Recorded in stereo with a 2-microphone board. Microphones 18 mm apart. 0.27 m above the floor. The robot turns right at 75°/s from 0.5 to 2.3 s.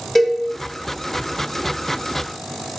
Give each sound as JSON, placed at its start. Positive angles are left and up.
{"t": 0.1, "sound": "a cowbell", "side_deg": 15, "distance_m": 0.7}